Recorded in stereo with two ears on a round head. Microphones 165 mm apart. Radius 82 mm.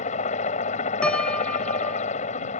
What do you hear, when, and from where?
0.0 s a helicopter: 40° left (ahead or behind)
1.0 s a piano: 5° left (ahead or behind)